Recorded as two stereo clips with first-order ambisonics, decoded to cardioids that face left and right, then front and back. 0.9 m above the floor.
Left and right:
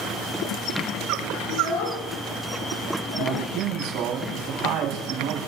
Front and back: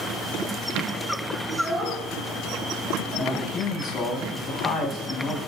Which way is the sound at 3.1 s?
55° right.